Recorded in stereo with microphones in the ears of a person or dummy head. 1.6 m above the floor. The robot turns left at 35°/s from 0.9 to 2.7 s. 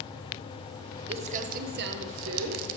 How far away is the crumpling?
About 0.8 m.